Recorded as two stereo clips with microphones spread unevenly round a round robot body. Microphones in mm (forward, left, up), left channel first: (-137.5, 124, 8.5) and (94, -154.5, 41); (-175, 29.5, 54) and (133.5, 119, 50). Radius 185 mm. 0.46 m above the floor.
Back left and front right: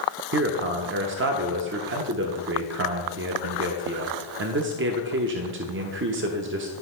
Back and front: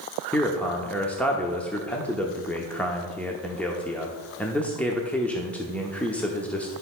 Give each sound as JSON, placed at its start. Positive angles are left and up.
{"t": 0.3, "sound": "a man speaking", "azimuth_deg": -80, "distance_m": 0.9}